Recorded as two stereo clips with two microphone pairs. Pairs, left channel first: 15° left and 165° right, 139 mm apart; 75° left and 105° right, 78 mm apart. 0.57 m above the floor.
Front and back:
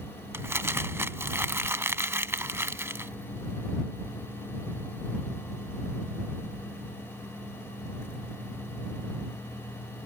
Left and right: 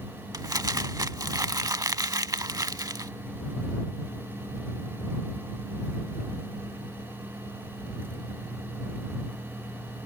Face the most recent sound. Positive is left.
turn(degrees=-105)